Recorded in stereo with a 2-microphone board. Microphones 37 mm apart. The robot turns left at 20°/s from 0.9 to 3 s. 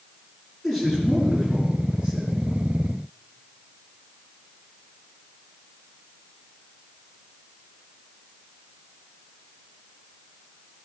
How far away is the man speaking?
About 5 m.